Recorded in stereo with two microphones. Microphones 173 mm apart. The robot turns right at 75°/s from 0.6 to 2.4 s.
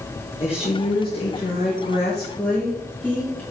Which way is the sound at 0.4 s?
35° left.